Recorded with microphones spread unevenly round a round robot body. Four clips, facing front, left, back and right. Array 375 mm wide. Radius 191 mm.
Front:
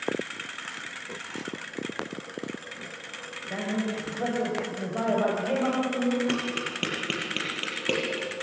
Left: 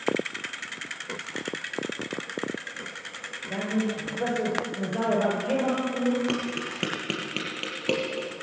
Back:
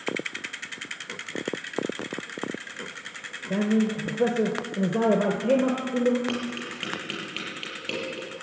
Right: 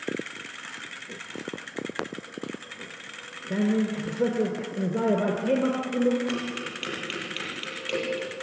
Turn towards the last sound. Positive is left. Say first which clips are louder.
# left 2 dB, front 2 dB
turn(degrees=60)